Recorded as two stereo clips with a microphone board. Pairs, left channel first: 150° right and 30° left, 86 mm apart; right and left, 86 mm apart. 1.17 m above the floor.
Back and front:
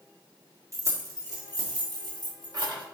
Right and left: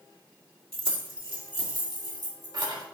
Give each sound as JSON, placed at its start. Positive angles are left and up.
{"t": 0.7, "sound": "keys jangling", "azimuth_deg": 80, "distance_m": 1.7}